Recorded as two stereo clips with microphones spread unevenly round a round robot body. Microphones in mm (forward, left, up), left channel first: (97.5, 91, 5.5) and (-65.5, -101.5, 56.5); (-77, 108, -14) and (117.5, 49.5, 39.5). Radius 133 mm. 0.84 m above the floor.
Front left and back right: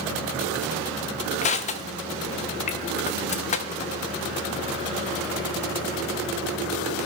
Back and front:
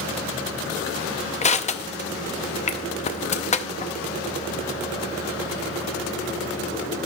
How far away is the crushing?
About 0.5 m.